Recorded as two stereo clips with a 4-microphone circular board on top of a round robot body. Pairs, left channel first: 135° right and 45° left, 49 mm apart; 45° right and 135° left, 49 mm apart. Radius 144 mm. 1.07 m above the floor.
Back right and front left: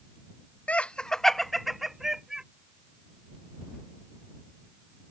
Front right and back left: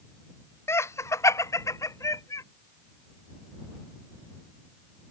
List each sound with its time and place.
0.7 s laughter: 75° right; by 2.4 s 35° right